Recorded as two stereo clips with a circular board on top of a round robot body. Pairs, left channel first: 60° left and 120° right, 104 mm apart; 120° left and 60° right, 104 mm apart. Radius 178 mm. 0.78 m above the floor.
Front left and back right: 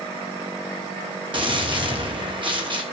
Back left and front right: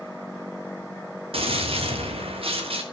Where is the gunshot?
85° right, 3 m.